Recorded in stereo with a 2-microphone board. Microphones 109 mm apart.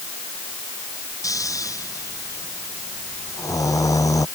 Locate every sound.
1.2 s snoring: 30° left (ahead or behind)